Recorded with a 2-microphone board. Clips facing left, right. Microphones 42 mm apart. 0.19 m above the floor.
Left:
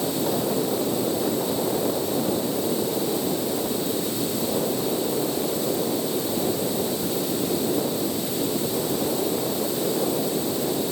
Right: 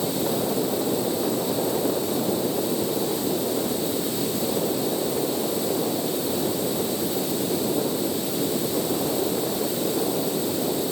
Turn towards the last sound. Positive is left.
No sound to turn to.